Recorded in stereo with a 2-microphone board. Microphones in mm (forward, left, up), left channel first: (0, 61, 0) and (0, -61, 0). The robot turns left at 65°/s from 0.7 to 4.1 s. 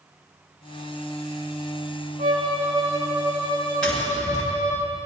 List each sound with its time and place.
2.2 s a violin: 105° right, 4.5 m; by 4.8 s 130° left, 4.5 m
3.8 s tapping: 10° left (ahead or behind), 6.5 m; by 4.4 s 25° left (ahead or behind), 6.5 m